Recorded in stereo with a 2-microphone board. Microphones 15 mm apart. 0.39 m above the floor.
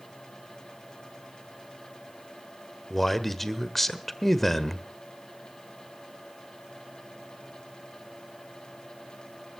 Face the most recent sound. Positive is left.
turn(degrees=10)  # may be behind; listen again after turning